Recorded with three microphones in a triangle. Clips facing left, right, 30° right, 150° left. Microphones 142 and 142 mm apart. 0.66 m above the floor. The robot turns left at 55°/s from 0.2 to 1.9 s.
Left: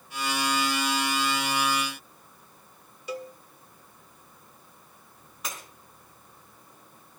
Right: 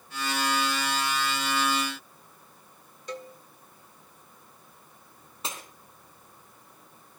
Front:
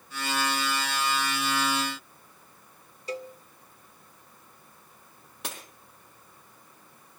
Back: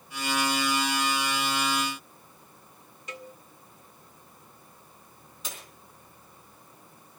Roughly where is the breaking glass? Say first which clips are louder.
Right 1 dB, front 3 dB; ahead right.